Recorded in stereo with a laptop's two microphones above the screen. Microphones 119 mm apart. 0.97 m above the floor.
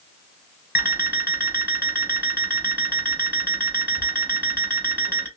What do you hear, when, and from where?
0.8 s an alarm clock: 15° right (ahead or behind), 1.7 m